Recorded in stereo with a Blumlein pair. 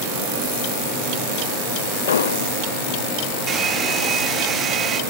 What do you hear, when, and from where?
2.1 s an explosion: 65° left, 0.9 m
3.5 s a hair dryer: 25° right, 1.3 m